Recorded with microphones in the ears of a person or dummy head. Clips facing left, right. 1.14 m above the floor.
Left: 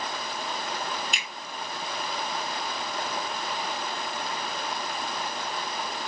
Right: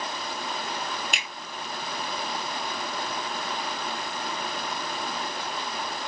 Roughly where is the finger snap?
Right.